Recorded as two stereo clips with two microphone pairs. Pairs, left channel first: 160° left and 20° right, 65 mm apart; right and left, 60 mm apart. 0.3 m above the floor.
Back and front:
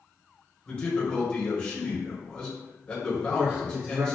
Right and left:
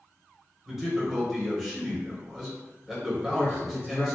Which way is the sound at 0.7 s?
165° left.